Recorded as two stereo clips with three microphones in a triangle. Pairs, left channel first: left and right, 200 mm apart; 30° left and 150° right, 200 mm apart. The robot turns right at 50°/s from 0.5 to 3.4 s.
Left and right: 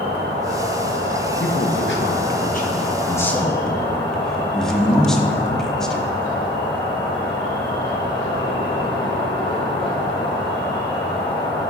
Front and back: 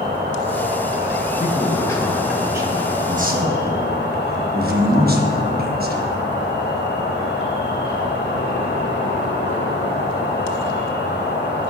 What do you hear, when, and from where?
0.0 s an insect: 115° right, 2.5 m; by 11.7 s 30° left, 2.5 m
1.4 s a man speaking: 75° left, 1.1 m; by 6.1 s 175° left, 1.1 m